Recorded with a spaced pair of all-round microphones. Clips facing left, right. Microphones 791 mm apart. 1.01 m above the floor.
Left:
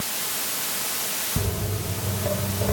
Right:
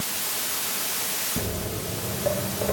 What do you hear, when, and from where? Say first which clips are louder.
1.4 s footsteps: even; 35° left (ahead or behind), 4 m